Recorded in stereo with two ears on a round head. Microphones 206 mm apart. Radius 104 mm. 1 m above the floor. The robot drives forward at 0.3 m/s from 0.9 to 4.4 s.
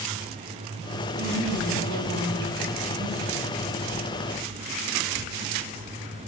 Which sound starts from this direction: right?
A woman speaking, at 1.2 s.